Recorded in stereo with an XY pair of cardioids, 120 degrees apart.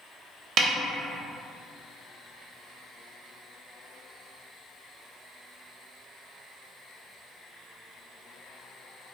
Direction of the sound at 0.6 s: 50° right.